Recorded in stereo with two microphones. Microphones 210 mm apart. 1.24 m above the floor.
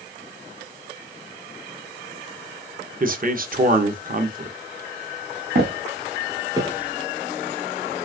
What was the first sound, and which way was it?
A man speaking, 45° right (ahead or behind).